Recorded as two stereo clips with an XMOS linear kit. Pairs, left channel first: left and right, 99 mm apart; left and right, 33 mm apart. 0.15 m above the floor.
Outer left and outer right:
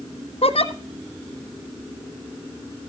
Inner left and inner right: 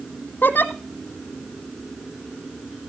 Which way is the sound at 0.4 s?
85° left.